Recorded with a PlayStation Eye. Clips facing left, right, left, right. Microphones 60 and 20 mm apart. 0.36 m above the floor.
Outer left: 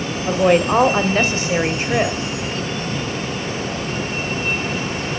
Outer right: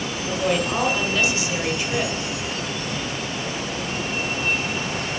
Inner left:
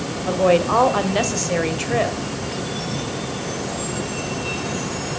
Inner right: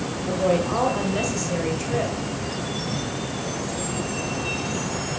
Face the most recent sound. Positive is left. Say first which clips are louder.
# outer left 8 dB, inner left 6 dB
turn(degrees=45)  # may be behind; listen again after turning